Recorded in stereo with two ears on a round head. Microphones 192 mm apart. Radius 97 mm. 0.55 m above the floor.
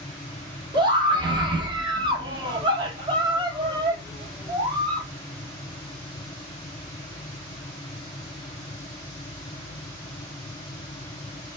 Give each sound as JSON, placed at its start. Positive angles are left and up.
{"t": 0.7, "sound": "a scream", "side_deg": -20, "distance_m": 0.9}